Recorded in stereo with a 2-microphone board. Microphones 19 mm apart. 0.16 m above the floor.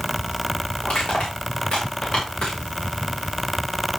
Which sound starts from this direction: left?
Crushing, at 0.8 s.